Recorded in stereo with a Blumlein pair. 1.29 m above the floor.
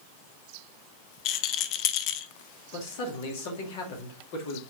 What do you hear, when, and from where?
1.2 s a rattle: 40° left, 0.6 m
2.7 s a man speaking: 50° left, 2.5 m